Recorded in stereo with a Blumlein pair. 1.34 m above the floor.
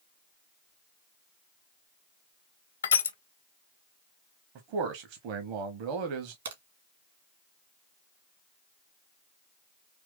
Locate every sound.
2.8 s crushing: 70° left, 0.7 m
4.5 s a man speaking: 45° right, 0.8 m
6.5 s a crack: 65° right, 1.6 m